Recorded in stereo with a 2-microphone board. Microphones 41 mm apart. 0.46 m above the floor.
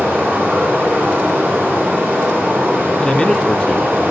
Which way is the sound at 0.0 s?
40° right (ahead or behind).